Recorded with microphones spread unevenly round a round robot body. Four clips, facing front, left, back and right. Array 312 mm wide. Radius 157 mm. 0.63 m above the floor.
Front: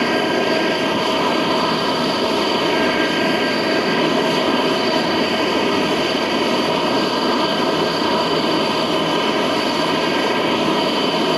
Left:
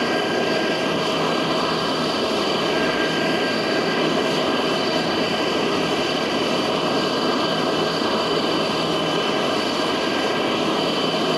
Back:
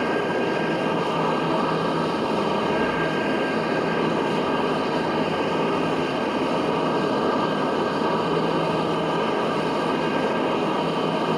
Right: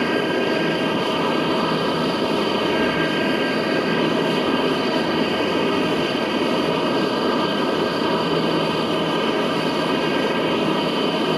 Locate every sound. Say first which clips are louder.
0.0 s an aircraft: right 1 dB, front 5 dB; 25° right